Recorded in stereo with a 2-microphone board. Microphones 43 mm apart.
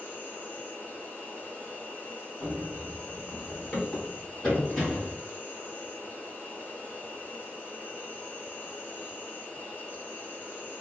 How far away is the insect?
About 1.4 m.